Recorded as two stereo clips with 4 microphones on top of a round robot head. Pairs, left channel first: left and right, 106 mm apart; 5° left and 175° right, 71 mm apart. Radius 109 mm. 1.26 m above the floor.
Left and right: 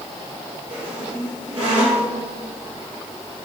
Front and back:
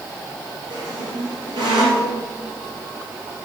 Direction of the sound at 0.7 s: 160° right.